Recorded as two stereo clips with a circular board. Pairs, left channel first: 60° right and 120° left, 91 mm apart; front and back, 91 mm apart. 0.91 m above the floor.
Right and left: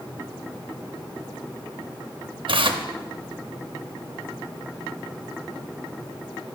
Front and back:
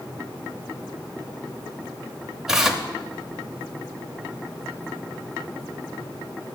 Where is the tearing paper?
95° left, 0.6 m.